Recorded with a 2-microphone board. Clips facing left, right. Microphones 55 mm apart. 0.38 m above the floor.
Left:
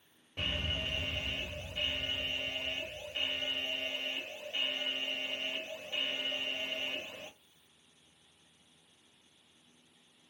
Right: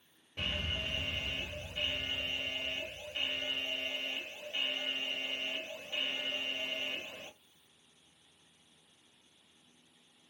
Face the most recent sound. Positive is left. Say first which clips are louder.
# left 1 dB
turn(degrees=15)  # may be behind; listen again after turning